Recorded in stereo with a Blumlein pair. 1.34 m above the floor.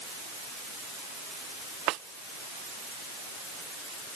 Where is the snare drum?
40° right.